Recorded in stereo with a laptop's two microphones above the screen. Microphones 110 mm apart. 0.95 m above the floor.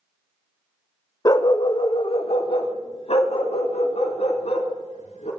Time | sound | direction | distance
1.2 | a dog barking | 35° left (ahead or behind) | 0.7 m